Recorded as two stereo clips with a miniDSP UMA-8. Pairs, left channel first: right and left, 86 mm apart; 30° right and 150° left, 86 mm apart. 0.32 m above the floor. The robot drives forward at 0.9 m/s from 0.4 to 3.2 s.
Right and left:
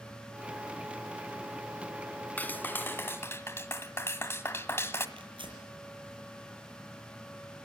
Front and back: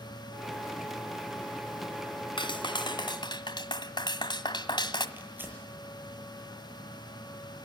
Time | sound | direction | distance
2.4 | a clap | 20° right | 2 m
5.2 | tearing paper | 85° left | 7 m